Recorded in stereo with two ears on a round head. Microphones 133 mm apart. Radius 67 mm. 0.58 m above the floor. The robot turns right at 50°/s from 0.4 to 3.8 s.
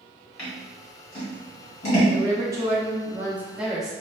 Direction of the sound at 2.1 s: 20° right (ahead or behind).